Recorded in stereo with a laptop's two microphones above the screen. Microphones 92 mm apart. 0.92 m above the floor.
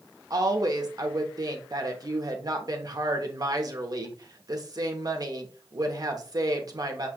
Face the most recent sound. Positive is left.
turn(degrees=-45)  # may be behind; listen again after turning